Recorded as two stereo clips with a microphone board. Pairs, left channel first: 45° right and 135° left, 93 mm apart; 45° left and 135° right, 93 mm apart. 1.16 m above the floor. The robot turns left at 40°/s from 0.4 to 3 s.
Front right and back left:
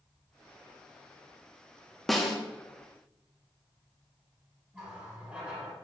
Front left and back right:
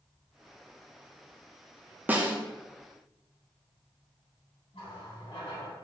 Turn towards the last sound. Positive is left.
turn(degrees=60)